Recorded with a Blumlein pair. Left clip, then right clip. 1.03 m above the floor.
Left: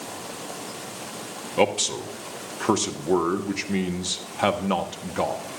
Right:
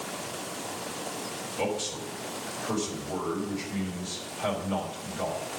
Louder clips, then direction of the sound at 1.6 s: Left 9 dB; 40° left.